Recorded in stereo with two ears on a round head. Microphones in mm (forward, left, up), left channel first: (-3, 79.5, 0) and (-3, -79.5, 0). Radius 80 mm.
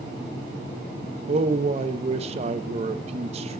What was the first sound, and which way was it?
A man speaking, 40° right (ahead or behind).